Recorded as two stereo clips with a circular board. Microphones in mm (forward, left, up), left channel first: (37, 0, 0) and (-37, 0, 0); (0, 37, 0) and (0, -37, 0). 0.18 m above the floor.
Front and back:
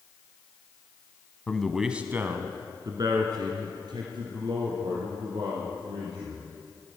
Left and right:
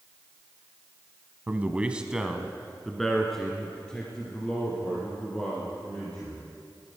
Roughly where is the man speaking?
Ahead right.